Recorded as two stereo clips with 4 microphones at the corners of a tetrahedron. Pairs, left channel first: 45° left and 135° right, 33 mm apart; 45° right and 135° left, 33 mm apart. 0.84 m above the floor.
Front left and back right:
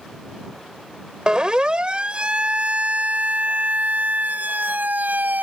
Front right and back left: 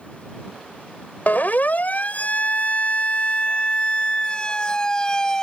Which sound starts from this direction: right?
A siren, at 1.3 s.